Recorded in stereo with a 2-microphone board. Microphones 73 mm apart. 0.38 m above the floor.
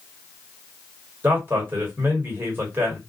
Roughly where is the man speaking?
Right.